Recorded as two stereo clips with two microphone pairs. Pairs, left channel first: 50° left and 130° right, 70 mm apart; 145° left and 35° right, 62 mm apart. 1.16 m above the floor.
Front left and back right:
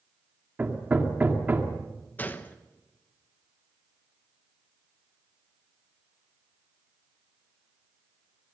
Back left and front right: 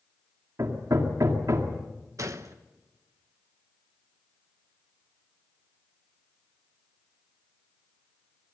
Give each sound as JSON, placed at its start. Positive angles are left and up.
{"t": 0.6, "sound": "hammering", "azimuth_deg": -65, "distance_m": 2.0}
{"t": 2.2, "sound": "a gunshot", "azimuth_deg": -15, "distance_m": 1.1}